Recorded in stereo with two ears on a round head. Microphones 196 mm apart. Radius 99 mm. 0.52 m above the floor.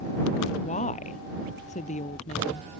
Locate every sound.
0.6 s a woman speaking: 35° left (ahead or behind)